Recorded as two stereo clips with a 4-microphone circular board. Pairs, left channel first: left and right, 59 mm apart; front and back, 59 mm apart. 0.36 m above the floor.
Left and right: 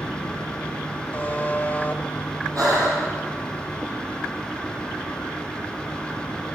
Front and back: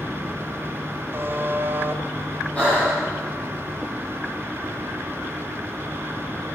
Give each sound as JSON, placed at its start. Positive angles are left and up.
{"t": 1.1, "sound": "a buzzer", "azimuth_deg": 145, "distance_m": 1.6}
{"t": 2.5, "sound": "breathing", "azimuth_deg": -70, "distance_m": 9.5}